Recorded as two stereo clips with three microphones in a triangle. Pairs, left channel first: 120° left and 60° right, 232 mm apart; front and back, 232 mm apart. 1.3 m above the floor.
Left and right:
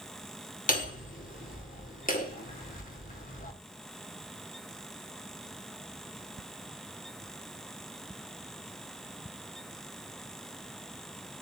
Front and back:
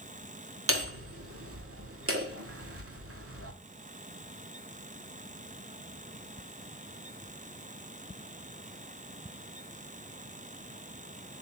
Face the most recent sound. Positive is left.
turn(degrees=175)